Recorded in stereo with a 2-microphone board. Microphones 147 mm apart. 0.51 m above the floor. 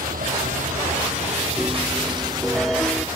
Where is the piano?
Centre (ahead or behind).